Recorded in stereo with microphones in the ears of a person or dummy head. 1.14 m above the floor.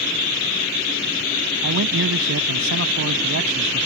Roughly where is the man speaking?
Right.